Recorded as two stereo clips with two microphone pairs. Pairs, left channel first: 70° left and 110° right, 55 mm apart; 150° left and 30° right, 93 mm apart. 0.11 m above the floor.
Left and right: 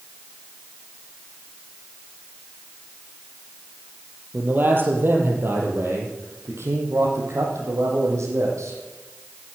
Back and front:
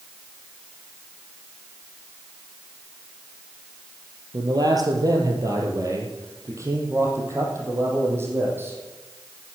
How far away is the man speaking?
About 3 m.